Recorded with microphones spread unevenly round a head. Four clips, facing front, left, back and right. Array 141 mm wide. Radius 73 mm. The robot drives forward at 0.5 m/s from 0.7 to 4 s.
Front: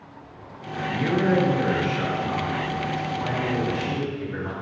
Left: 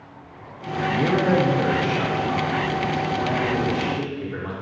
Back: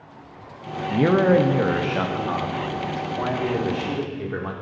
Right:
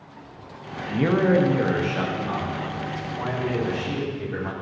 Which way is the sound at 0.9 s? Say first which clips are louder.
Right 1 dB, back 5 dB; 170° right.